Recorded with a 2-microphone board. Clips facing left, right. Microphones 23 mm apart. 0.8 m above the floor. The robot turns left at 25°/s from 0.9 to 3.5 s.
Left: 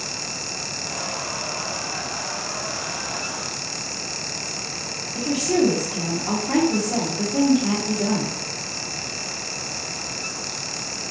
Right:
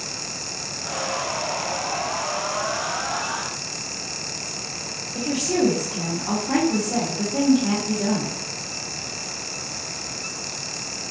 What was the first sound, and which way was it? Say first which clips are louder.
A woman speaking: left 2 dB; 5° right (ahead or behind).